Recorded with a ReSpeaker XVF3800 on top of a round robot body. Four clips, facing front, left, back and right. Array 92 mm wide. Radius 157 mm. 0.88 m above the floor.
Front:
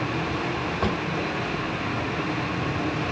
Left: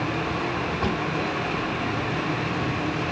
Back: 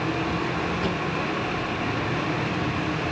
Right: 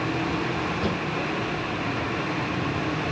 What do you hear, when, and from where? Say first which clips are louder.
0.8 s a drawer: left 2 dB, front 5 dB; 5° left, 3 m